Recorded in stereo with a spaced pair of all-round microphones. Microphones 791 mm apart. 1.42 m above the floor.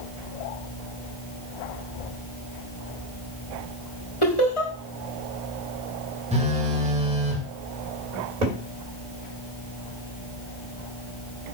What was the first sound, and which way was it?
Laughter, 35° left (ahead or behind).